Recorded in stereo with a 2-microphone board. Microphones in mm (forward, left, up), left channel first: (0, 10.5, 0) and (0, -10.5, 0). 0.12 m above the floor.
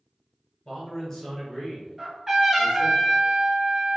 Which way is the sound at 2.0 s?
25° right (ahead or behind).